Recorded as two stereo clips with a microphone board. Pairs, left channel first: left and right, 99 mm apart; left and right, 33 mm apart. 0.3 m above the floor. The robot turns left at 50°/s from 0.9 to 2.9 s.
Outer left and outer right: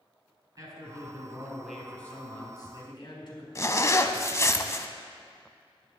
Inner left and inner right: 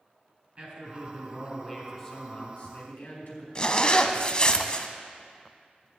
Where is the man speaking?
135° right, 4 m; by 3.5 s 125° left, 4 m.